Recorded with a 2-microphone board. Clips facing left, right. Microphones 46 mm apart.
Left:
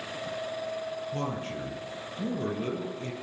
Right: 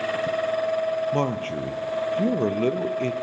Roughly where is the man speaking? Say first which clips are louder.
Right 8 dB; right.